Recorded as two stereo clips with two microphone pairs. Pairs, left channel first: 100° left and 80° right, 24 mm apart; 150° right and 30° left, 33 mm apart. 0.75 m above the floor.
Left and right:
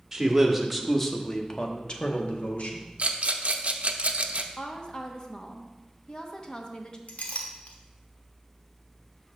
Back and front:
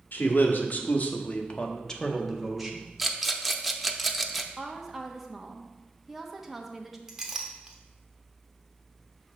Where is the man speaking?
160° right, 1.2 m; by 2.9 s 110° left, 1.1 m.